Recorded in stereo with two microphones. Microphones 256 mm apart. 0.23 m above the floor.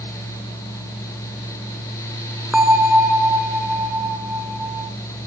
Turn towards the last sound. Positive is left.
turn(degrees=0)  # may be behind; listen again after turning